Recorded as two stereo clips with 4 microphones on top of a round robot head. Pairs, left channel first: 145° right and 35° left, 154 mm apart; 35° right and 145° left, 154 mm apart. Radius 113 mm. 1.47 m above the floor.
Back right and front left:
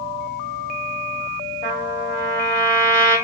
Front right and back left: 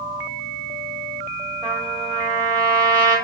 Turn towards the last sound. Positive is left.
turn(degrees=-145)